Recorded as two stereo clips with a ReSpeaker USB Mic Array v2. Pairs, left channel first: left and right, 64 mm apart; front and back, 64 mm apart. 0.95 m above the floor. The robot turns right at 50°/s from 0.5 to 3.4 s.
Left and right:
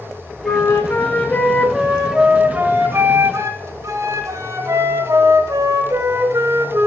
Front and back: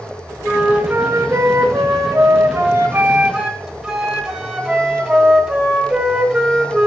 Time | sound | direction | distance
0.4 | a flute | 110° left | 1.2 m